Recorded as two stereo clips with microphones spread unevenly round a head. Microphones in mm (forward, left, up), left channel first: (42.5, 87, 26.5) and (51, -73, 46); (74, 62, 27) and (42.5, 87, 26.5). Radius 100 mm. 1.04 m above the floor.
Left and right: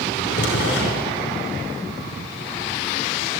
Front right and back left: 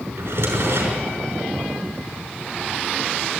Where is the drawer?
115° left, 6 m.